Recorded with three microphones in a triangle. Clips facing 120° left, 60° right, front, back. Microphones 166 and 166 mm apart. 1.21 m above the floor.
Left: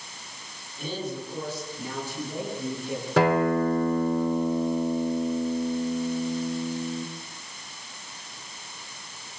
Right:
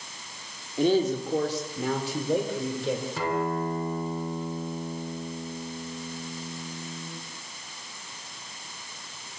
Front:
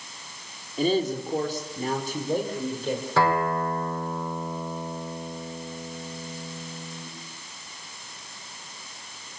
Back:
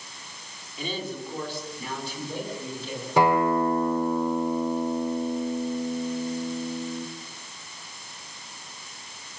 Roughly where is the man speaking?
Ahead right.